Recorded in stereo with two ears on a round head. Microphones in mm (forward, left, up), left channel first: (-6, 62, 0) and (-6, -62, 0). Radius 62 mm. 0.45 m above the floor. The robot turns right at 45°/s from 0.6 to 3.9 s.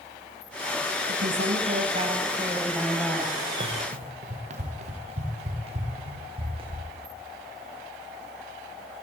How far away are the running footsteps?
About 4 m.